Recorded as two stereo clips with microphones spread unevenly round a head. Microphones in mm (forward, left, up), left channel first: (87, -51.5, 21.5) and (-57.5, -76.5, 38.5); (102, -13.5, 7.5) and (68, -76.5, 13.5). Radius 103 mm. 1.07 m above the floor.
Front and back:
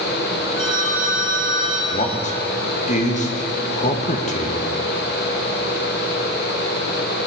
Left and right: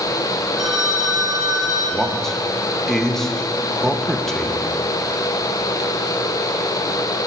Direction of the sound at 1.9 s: 20° right.